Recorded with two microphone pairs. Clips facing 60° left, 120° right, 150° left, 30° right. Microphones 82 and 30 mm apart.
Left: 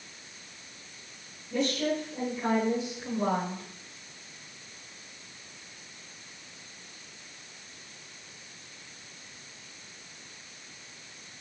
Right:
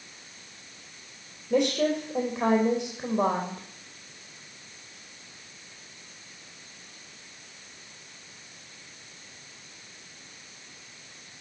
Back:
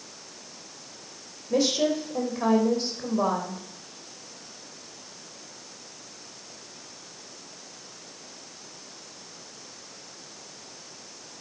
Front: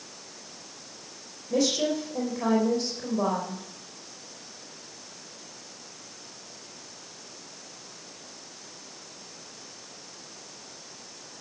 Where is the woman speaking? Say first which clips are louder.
Right 5 dB, back 2 dB; 140° right, 5 m.